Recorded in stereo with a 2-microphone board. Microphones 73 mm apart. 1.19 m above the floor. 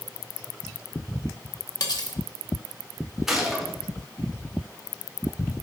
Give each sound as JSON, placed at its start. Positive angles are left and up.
{"t": 1.8, "sound": "cutlery clinking", "side_deg": 60, "distance_m": 1.0}
{"t": 3.3, "sound": "a gunshot", "side_deg": -5, "distance_m": 1.4}